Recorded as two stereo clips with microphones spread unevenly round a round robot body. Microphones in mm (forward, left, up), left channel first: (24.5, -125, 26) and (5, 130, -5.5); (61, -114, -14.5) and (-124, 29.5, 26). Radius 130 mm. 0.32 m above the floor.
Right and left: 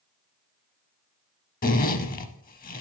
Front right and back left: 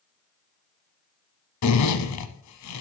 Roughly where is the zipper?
Ahead right.